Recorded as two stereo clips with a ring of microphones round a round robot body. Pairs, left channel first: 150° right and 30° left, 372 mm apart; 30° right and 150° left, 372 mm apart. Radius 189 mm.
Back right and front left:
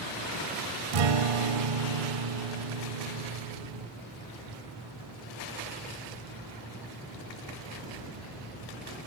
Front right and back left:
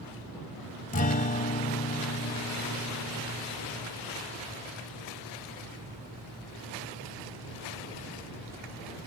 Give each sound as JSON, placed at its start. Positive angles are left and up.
{"t": 0.9, "sound": "a guitar", "azimuth_deg": 40}